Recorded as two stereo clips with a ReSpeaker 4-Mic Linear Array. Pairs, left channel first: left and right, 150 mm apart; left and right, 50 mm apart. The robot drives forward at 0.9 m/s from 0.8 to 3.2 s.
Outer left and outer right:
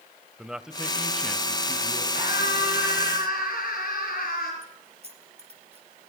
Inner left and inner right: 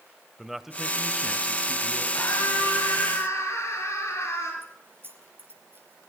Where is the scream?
75° left (ahead or behind), 5.5 m.